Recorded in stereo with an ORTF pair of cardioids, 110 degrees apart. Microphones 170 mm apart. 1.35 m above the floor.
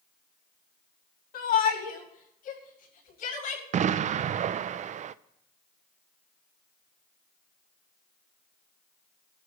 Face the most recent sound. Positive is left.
turn(degrees=-45)